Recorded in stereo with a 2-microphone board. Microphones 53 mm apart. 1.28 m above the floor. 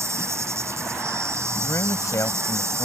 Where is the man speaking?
85° left.